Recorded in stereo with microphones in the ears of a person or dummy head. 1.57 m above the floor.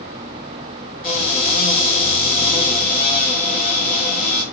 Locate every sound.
1.0 s a cupboard door: 35° left (ahead or behind), 1.0 m